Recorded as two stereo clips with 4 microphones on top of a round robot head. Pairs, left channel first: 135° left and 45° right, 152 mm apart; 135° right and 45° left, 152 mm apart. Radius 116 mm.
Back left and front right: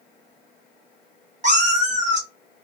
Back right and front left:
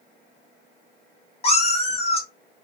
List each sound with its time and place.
1.4 s a cat meowing: 85° right, 1.1 m